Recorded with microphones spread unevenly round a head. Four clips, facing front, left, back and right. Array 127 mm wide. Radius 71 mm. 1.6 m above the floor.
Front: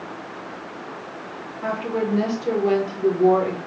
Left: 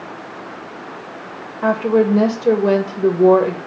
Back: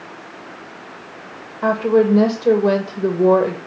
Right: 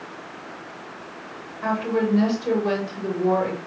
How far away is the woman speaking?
About 2 m.